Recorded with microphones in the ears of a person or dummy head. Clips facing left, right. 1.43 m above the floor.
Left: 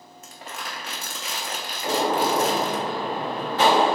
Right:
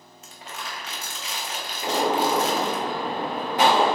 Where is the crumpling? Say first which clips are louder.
Left 1 dB; 45° left (ahead or behind), 0.5 m.